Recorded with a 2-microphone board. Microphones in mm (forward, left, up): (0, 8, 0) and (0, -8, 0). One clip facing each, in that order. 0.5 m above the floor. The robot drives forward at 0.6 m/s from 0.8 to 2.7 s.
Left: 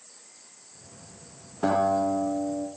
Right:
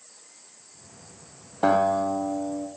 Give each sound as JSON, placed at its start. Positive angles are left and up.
{"t": 1.6, "sound": "a guitar", "side_deg": -25, "distance_m": 0.5}